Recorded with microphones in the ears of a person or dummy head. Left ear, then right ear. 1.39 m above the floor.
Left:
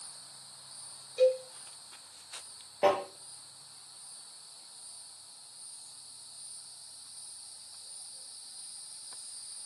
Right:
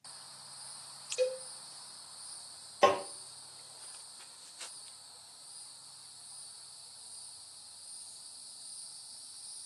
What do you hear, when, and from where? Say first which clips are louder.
1.2 s a cowbell: left 7 dB; 5° right (ahead or behind), 0.5 m
2.8 s tapping: even; 40° right (ahead or behind), 0.6 m